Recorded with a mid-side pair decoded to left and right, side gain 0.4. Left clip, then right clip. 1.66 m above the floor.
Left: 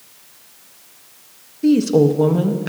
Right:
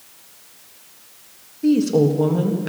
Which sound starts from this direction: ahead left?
A woman speaking, at 1.6 s.